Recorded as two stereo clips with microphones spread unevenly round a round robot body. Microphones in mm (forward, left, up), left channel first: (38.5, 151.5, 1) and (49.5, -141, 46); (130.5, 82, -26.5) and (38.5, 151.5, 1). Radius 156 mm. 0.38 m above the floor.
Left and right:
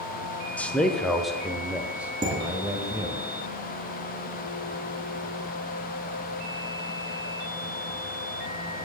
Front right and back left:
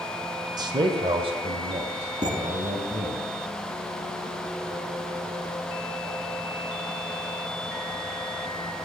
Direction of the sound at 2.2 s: 165° right.